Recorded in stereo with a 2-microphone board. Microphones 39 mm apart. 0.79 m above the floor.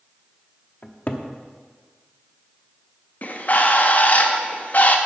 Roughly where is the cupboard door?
Left.